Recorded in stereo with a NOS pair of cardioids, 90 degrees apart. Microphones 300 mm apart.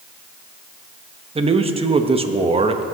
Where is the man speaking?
20° right, 1.0 m.